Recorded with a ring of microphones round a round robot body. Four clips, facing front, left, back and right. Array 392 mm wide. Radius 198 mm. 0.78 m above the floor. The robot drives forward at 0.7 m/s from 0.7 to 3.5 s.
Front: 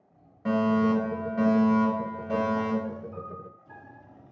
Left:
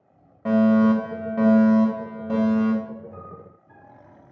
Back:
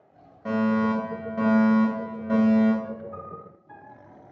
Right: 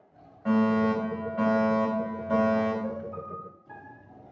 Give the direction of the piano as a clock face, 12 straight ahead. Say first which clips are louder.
Right 3 dB, back 1 dB; 3 o'clock.